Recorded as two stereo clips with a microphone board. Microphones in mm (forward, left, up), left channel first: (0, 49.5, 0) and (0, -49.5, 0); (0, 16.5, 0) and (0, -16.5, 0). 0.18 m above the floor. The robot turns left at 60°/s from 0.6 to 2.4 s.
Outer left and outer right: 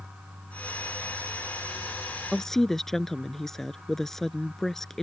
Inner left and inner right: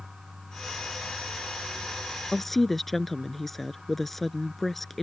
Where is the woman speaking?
Centre (ahead or behind); by 5.0 s 5° left (ahead or behind).